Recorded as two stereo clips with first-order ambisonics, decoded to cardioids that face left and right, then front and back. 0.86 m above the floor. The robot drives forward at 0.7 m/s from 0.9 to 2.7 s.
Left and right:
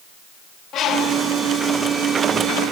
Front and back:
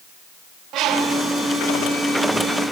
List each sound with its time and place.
0.7 s a bird: 140° left, 0.8 m; by 1.2 s 150° left, 0.9 m